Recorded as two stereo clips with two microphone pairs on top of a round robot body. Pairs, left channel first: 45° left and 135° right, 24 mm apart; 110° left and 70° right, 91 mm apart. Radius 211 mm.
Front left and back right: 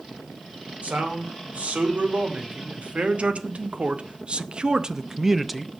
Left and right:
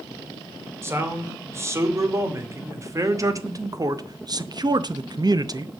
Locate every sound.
0.8 s a man speaking: 130° right, 2.5 m; by 5.7 s 40° right, 0.8 m